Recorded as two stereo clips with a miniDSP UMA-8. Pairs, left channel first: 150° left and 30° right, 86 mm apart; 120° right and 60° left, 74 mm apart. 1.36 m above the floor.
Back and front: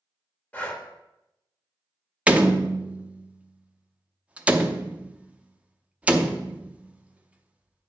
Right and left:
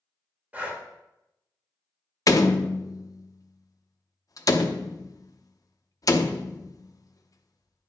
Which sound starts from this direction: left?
Breathing, at 0.5 s.